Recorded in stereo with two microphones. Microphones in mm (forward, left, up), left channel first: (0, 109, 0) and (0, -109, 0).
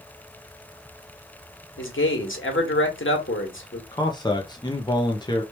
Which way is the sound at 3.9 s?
20° left (ahead or behind).